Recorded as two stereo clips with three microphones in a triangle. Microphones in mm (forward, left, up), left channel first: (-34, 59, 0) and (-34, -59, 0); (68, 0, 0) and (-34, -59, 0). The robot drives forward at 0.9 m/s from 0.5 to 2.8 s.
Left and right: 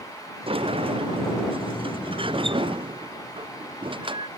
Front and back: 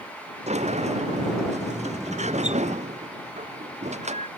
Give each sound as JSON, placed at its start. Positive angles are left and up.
{"t": 0.5, "sound": "a sliding door", "azimuth_deg": -130}